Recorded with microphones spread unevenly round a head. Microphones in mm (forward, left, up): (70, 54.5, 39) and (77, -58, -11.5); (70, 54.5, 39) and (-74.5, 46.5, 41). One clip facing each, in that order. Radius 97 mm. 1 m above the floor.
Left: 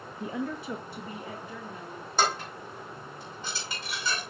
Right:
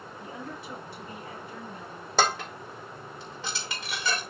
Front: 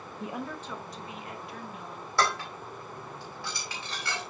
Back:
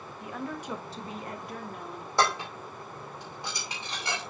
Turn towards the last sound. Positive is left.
turn(degrees=-100)